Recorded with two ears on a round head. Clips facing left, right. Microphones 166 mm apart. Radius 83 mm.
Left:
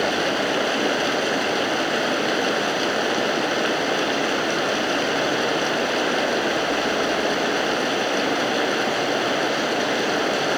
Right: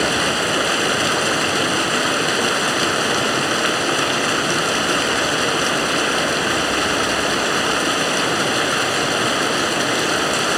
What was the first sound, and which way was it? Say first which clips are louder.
Running water: right 1 dB; 65° right (ahead or behind).